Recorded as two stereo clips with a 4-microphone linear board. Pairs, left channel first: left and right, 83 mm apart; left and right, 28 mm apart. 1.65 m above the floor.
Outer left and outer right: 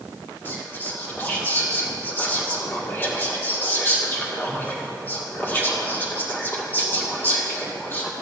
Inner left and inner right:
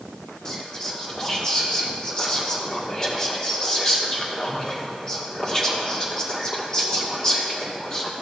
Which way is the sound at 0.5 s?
25° left (ahead or behind).